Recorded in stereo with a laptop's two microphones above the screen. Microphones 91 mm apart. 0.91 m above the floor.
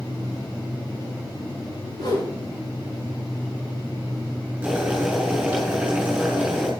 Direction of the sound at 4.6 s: 15° right (ahead or behind).